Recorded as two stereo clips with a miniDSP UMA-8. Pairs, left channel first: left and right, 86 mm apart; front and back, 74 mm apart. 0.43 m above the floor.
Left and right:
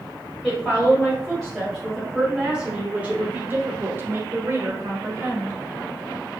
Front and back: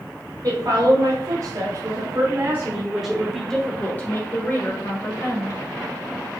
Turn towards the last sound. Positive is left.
turn(degrees=-35)